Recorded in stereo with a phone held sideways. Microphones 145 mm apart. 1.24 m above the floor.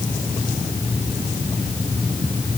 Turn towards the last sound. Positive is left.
No sound to turn to.